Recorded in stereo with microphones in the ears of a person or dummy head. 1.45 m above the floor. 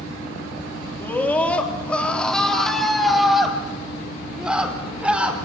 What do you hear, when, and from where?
1.0 s a scream: 10° left (ahead or behind), 2.5 m; by 5.5 s 5° right (ahead or behind), 4.5 m